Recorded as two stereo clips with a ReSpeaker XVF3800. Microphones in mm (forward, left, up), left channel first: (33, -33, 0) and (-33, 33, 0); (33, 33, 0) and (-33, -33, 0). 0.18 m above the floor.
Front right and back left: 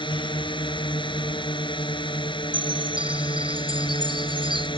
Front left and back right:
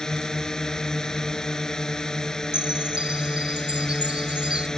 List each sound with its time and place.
0.0 s a drone: 40° right
2.5 s a chime: 145° left